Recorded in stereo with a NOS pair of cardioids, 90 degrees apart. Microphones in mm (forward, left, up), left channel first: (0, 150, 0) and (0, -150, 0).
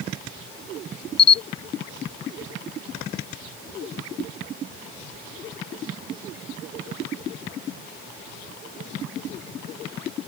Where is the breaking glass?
I don't hear breaking glass.